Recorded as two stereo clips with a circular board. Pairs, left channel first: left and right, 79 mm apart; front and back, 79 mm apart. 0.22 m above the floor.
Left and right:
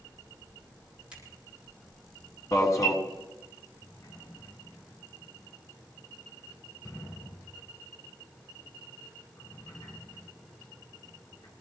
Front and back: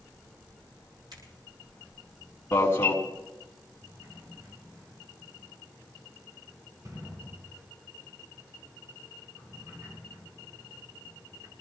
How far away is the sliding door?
About 4.5 m.